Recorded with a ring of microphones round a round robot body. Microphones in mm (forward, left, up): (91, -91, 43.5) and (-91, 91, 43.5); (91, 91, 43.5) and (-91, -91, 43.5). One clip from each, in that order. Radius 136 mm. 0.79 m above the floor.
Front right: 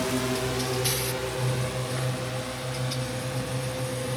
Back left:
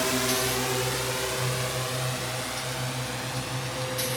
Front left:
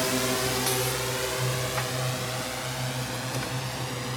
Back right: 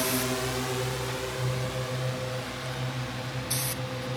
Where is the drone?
115° left; by 4.2 s 90° left.